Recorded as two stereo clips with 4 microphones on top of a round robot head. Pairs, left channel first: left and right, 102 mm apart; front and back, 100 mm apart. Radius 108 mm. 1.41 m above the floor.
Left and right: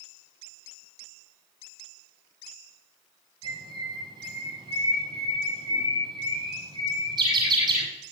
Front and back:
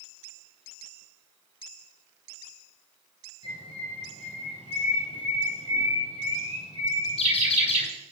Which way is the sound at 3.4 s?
45° right.